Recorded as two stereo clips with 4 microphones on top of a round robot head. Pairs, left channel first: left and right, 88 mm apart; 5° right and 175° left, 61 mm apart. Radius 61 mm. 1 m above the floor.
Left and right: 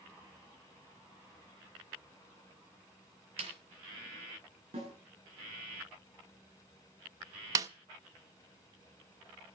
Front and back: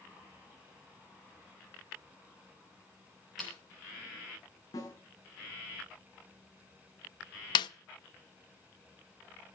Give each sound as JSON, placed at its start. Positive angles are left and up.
{"t": 3.4, "sound": "a snare drum", "azimuth_deg": -95, "distance_m": 6.0}
{"t": 4.7, "sound": "a snare drum", "azimuth_deg": -50, "distance_m": 9.5}
{"t": 7.5, "sound": "a snare drum", "azimuth_deg": -30, "distance_m": 0.6}